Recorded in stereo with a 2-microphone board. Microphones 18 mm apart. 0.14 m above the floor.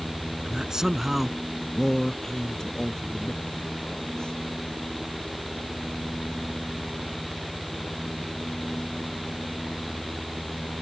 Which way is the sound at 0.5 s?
35° right (ahead or behind).